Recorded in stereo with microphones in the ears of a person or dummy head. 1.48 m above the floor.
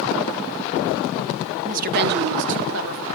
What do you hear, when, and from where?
1.6 s a woman speaking: 35° right (ahead or behind), 0.7 m; by 3.1 s 70° right (ahead or behind), 2.5 m